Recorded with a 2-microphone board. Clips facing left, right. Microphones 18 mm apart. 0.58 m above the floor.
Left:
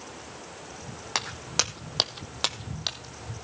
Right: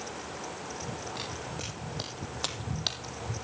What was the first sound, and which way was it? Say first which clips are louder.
Footsteps: left 8 dB; 75° left (ahead or behind).